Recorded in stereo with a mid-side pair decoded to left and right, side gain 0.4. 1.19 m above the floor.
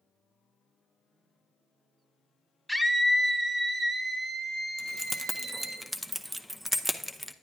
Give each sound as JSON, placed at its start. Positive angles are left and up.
{"t": 2.7, "sound": "a scream", "azimuth_deg": 5, "distance_m": 1.3}
{"t": 4.8, "sound": "keys jangling", "azimuth_deg": -10, "distance_m": 0.7}